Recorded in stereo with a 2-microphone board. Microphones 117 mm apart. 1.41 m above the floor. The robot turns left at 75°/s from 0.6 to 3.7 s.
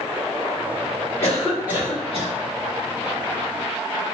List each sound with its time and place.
1.2 s a cough: 25° left, 1.7 m; by 2.4 s 65° right, 1.7 m